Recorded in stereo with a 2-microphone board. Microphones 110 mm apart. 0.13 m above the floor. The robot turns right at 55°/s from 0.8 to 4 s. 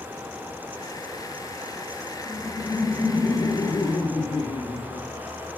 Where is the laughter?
25° right, 3.5 m; by 5.5 s 70° left, 3.5 m.